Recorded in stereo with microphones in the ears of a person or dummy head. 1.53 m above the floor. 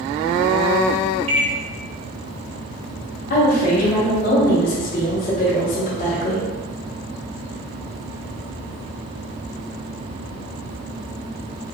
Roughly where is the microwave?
Right.